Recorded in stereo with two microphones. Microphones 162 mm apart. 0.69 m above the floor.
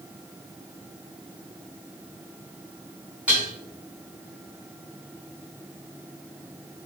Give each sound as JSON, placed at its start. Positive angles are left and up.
{"t": 3.3, "sound": "dishes clattering", "side_deg": -10, "distance_m": 4.0}